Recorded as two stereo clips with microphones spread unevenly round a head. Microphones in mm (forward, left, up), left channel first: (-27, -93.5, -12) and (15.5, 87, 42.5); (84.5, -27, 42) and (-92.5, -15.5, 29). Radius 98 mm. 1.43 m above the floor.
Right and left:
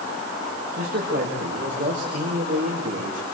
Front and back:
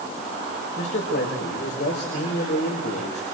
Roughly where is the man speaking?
Ahead left.